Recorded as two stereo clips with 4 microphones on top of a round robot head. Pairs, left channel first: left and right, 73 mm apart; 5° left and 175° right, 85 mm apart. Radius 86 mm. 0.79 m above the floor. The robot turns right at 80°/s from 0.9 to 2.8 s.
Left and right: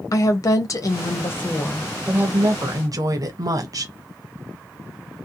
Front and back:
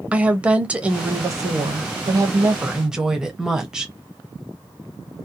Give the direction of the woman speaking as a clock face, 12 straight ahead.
8 o'clock.